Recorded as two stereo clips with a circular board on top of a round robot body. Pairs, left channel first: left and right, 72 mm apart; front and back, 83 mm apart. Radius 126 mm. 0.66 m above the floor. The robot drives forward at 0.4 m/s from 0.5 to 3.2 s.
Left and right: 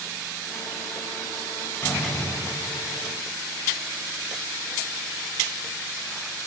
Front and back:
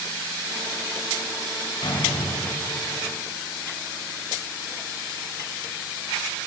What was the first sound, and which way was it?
A door slam, 30° left.